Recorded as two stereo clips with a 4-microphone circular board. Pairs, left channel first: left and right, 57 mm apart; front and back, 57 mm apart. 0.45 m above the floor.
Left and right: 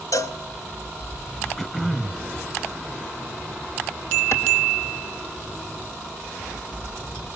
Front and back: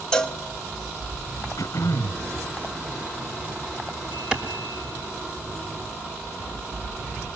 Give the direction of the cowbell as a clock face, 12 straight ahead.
9 o'clock.